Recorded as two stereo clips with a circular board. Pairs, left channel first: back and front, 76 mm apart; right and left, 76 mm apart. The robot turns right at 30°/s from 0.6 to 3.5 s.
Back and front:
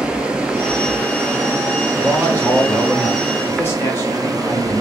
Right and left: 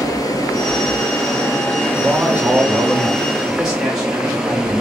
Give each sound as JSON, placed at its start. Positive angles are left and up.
{"t": 0.0, "sound": "running water", "azimuth_deg": -75, "distance_m": 0.8}
{"t": 2.0, "sound": "a man speaking", "azimuth_deg": 120, "distance_m": 1.4}